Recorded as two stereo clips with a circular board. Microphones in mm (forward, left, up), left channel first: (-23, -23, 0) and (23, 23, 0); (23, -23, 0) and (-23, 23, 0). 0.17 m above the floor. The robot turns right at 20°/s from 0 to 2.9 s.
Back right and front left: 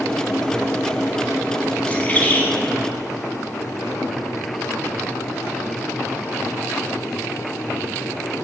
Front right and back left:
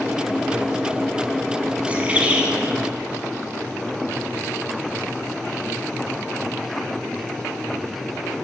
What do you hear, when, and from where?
1.9 s a bird: straight behind, 0.6 m; by 2.5 s 165° right, 0.6 m